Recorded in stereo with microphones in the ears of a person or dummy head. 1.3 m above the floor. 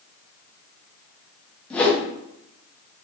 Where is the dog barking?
No dog barking in this recording.